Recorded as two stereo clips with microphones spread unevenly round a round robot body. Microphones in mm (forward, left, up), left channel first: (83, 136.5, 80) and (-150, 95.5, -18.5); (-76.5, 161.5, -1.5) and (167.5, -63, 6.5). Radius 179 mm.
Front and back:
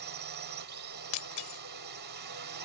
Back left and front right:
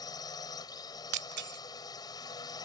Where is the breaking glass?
5° right.